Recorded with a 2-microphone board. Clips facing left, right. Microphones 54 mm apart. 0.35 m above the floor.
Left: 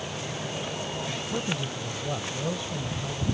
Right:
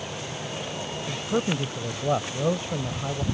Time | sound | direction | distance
1.1 | a man speaking | 45° right (ahead or behind) | ?